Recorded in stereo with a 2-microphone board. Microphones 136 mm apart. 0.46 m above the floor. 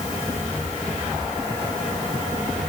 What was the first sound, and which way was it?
Only background noise.